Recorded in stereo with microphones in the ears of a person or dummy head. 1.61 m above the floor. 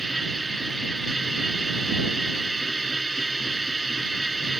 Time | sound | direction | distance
0.0 | a machine running | 5° left (ahead or behind) | ?